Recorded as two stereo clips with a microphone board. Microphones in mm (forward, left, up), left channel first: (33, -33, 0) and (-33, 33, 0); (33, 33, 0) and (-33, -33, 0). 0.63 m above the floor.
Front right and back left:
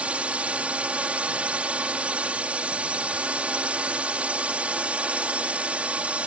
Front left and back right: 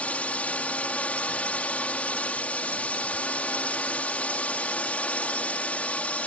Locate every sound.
0.0 s a drone: 90° left